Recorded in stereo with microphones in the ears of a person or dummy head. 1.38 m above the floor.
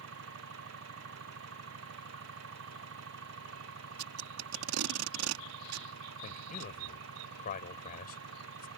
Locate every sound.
0.0 s an engine running: 70° right (ahead or behind)
4.0 s tape being pulled: 75° right (ahead or behind)
6.2 s a man speaking: 50° left (ahead or behind)